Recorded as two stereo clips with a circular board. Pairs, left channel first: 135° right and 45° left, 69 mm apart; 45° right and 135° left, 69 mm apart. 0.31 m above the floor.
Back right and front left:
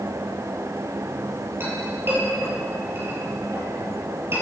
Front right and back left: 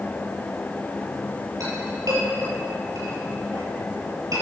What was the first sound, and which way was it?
A clink, 100° left.